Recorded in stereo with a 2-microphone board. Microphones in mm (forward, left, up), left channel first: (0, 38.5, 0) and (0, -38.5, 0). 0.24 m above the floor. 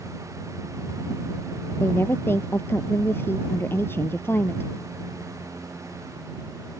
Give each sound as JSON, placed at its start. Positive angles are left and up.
{"t": 1.8, "sound": "a woman speaking", "side_deg": 30}